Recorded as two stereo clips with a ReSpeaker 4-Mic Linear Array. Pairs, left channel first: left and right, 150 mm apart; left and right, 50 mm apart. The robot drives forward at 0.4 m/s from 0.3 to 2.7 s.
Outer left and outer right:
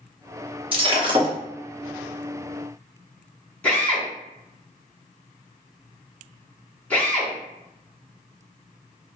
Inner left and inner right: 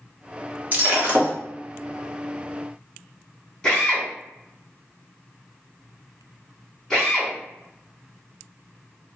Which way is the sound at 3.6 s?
10° left (ahead or behind).